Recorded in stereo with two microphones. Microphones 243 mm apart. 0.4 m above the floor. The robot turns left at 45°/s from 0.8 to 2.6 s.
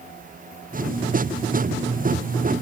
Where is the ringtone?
No ringtone in this recording.